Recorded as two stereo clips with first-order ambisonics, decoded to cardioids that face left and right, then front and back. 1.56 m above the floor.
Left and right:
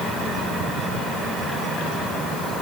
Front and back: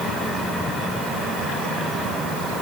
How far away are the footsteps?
No footsteps in this recording.